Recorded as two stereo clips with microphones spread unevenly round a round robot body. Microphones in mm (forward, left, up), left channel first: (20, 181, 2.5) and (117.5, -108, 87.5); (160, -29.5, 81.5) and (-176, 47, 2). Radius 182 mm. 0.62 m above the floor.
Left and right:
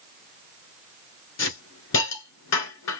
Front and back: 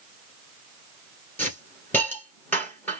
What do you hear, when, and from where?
1.4 s a hiss: 75° left, 1.7 m